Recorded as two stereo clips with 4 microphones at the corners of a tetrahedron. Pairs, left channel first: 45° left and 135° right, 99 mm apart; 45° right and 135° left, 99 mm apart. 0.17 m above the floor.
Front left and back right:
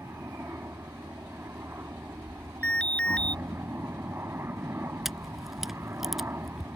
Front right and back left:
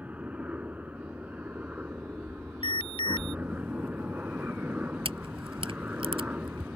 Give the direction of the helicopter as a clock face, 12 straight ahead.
6 o'clock.